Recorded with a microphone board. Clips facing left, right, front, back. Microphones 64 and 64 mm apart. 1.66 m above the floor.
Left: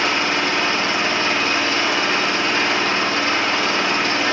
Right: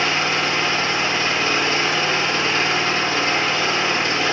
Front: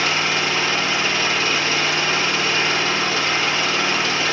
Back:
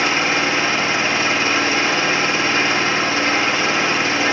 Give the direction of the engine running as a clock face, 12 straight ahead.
8 o'clock.